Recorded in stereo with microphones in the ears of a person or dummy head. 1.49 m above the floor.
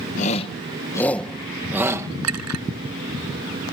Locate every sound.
0.2 s a shout: 40° left (ahead or behind); by 2.1 s 20° right (ahead or behind)
2.2 s a clink: 85° right